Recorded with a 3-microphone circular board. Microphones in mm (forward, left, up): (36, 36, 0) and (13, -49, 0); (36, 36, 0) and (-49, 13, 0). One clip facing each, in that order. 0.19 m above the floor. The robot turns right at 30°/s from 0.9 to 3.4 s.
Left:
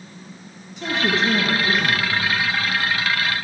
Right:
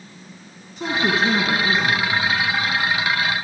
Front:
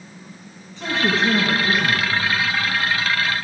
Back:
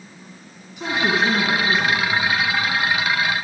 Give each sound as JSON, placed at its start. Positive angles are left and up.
{"t": 0.8, "sound": "a man speaking", "azimuth_deg": -95, "distance_m": 1.7}